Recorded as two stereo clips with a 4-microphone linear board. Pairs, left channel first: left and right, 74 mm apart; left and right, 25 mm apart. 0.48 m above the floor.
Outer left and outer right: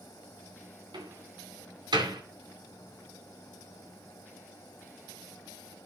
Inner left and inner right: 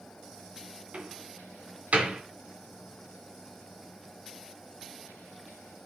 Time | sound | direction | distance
0.9 | a door slam | 75° right (ahead or behind) | 3 m